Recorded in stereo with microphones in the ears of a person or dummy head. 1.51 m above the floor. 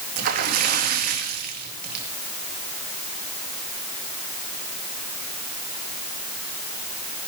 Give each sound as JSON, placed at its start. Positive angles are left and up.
{"t": 0.2, "sound": "a splash", "side_deg": -50, "distance_m": 2.5}